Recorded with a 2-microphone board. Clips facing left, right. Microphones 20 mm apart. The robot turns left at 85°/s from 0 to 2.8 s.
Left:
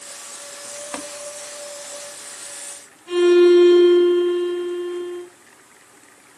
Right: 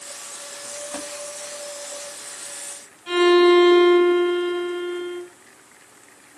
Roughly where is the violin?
Right.